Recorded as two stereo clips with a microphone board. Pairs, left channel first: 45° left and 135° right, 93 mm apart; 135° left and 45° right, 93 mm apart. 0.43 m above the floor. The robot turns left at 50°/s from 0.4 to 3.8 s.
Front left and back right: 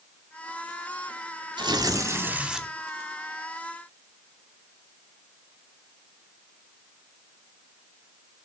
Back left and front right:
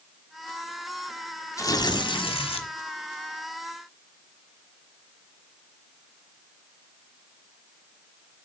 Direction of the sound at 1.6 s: 170° right.